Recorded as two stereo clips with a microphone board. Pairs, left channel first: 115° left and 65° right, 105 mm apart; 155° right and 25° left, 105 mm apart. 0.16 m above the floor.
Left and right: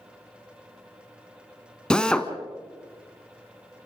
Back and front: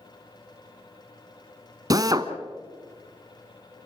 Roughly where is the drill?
Ahead left.